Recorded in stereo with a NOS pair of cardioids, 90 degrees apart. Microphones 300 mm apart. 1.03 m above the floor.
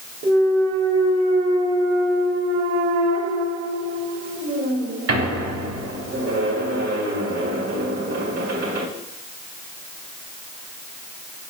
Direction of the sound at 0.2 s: 55° right.